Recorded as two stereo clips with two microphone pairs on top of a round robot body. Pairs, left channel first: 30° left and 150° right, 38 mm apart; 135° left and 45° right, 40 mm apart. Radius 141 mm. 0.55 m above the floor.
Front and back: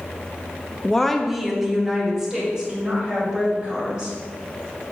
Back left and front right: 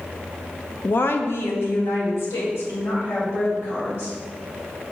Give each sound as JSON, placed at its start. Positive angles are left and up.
{"t": 0.8, "sound": "a woman speaking", "azimuth_deg": 100, "distance_m": 0.8}